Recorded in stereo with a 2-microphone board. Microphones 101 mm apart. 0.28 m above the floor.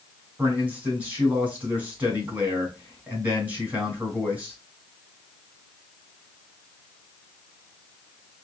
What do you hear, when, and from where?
0.4 s a man speaking: 15° right (ahead or behind), 2 m